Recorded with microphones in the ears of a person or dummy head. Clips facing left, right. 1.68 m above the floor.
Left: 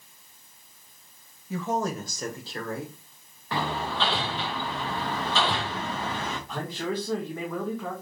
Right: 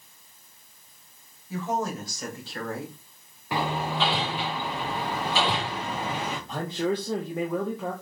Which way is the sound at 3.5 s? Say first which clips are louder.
Right 2 dB; 15° right (ahead or behind).